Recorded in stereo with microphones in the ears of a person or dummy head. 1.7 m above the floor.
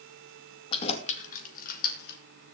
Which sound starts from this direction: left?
Keys jangling, at 0.7 s.